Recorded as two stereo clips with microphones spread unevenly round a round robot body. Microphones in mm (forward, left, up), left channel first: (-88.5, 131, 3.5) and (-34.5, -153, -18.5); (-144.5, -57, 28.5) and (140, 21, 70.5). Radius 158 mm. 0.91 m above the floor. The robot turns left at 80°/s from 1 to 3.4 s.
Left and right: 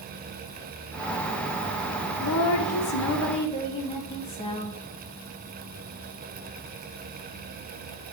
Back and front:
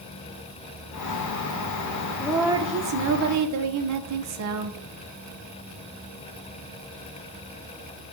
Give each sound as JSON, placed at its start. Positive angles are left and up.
{"t": 2.2, "sound": "a woman speaking", "azimuth_deg": 125, "distance_m": 0.6}